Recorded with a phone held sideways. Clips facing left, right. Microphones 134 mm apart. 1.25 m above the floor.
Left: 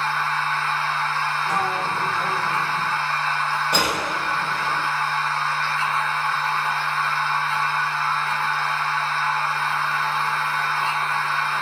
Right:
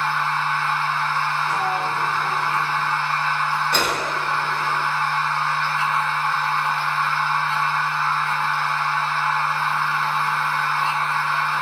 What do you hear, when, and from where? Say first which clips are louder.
0.0 s a machine running: right 1 dB; 20° right (ahead or behind), 1.6 m
1.5 s a sliding door: right 1 dB; 45° left (ahead or behind), 0.9 m
3.7 s a gunshot: even; 15° left (ahead or behind), 1.3 m